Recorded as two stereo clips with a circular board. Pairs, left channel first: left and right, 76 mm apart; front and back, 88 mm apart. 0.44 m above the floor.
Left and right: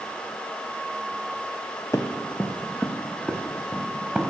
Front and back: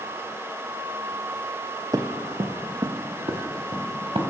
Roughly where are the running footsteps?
Behind left.